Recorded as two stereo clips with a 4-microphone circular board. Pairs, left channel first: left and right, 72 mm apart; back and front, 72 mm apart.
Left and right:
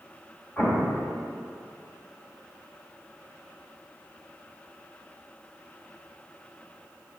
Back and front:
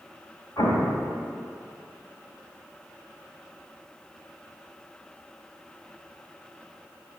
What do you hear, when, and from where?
0.6 s an explosion: 150° left, 1.1 m